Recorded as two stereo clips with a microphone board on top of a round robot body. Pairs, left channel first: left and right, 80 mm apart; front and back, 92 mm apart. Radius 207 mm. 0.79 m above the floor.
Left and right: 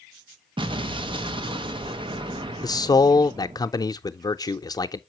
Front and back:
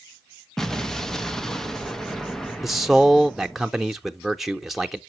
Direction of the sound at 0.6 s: 85° right.